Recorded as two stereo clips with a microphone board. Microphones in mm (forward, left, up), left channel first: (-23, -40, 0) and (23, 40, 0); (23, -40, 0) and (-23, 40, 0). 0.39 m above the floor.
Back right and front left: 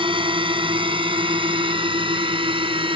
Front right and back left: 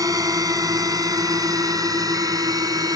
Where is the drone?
75° left.